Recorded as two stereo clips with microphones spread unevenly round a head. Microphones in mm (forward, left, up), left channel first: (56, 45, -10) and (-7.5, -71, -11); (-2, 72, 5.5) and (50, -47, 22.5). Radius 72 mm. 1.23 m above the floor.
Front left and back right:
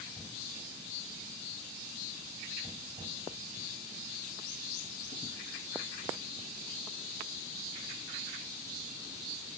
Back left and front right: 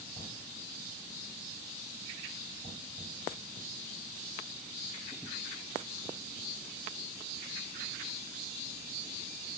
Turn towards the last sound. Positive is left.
No sound to turn to.